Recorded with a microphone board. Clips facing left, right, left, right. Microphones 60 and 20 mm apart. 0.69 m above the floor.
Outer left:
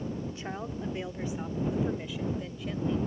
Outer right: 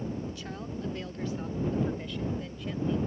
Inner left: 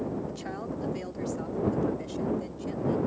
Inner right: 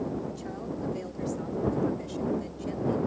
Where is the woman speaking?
30° left (ahead or behind); by 3.0 s centre (ahead or behind).